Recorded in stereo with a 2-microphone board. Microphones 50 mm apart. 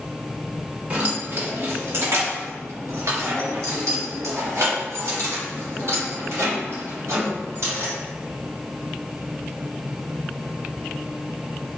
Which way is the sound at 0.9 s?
30° right (ahead or behind).